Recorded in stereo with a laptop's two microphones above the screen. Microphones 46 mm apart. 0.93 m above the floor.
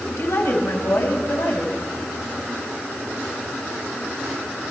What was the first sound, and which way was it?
A woman speaking, 70° left (ahead or behind).